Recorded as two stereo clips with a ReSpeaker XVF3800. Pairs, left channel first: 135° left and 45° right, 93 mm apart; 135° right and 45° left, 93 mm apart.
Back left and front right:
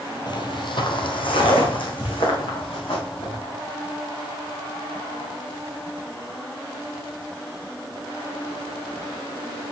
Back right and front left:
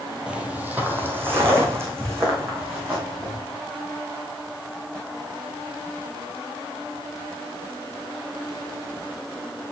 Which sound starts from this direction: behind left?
Footsteps, at 0.3 s.